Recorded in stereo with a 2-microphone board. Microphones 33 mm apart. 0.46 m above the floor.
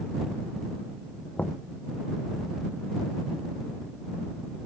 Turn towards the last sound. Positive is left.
turn(degrees=50)  # may be behind; listen again after turning